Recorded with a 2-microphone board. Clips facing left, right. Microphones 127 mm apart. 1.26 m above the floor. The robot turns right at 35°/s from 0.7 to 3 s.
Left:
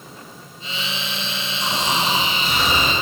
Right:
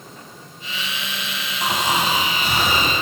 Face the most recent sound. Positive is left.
turn(degrees=-75)